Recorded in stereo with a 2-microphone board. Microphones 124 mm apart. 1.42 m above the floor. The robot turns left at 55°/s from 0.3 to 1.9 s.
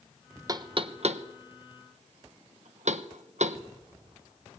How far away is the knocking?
About 1.0 m.